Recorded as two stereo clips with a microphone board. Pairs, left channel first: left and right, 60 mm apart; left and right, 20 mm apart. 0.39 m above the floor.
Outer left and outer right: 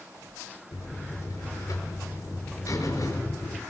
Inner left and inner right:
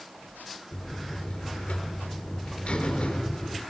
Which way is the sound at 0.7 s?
65° left (ahead or behind).